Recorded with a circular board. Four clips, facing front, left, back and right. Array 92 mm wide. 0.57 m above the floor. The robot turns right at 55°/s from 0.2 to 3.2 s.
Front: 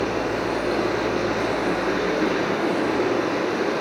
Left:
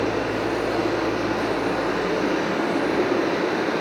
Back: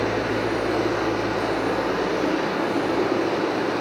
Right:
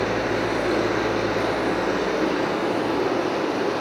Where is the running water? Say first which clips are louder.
Even, even; 110° right, 1.3 m; by 3.8 s 55° left, 1.3 m.